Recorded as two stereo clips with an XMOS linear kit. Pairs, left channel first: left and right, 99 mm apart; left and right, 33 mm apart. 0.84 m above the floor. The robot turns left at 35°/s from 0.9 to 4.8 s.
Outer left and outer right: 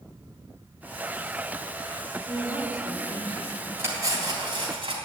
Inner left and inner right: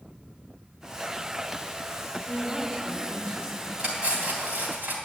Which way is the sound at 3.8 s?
25° right.